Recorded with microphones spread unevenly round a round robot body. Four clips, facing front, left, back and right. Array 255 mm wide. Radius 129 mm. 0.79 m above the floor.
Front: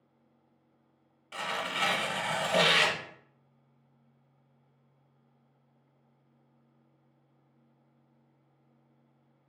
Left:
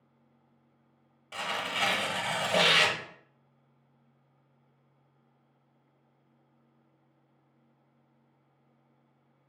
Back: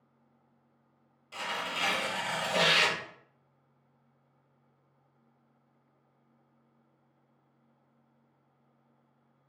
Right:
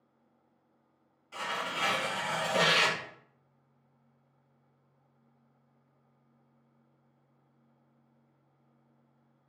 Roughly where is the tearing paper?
Left.